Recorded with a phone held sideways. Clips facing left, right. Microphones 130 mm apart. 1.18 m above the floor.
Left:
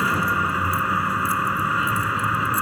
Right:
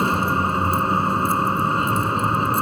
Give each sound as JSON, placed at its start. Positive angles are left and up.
{"t": 0.0, "sound": "a vehicle", "side_deg": -30}